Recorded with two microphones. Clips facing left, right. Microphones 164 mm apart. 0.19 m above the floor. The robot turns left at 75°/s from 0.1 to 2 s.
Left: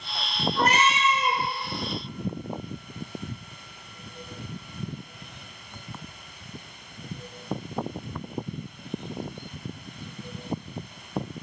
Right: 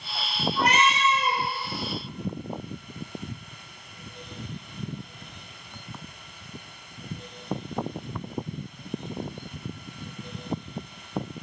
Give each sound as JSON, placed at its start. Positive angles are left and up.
{"t": 0.6, "sound": "a cat meowing", "azimuth_deg": 55, "distance_m": 0.7}